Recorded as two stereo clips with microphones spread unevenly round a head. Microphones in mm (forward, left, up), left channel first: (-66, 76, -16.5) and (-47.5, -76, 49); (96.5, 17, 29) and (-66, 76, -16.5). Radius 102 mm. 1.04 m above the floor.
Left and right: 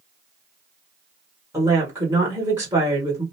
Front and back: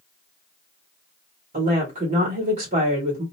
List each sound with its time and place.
1.5 s a woman speaking: 165° right, 1.3 m